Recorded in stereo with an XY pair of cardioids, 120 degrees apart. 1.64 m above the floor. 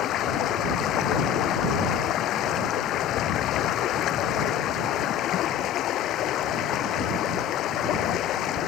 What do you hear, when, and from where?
0.0 s running water: 65° left